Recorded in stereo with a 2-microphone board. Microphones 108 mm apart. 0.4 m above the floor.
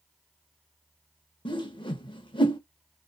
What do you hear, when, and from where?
1.4 s a whoosh: 45° left (ahead or behind), 0.6 m